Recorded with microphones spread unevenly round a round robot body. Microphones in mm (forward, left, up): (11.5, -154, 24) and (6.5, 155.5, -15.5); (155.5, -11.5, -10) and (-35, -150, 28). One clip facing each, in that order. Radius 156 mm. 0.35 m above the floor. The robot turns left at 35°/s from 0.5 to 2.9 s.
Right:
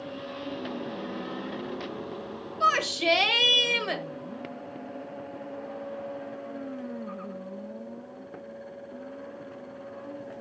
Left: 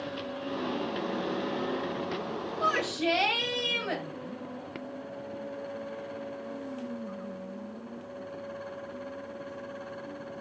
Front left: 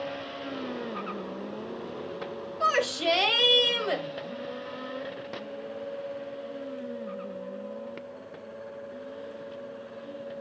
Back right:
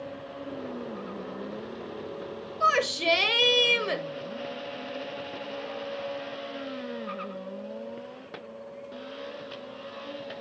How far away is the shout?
About 1.5 m.